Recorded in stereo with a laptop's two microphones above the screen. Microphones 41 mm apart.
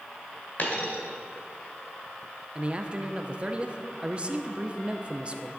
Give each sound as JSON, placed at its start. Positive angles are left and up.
{"t": 0.6, "sound": "a dropped coin", "side_deg": 45, "distance_m": 1.9}
{"t": 2.5, "sound": "a man speaking", "side_deg": -25, "distance_m": 0.6}